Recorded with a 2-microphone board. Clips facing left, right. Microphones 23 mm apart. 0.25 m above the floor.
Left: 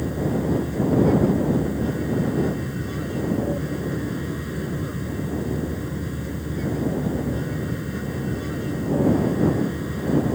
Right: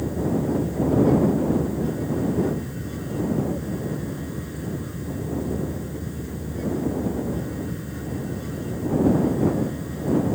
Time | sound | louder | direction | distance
0.0 | an aircraft | even | 25° left (ahead or behind) | ?